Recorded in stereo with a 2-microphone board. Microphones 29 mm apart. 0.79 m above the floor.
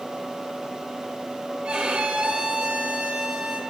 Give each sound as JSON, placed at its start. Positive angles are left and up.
{"t": 1.6, "sound": "a violin", "side_deg": -45, "distance_m": 1.2}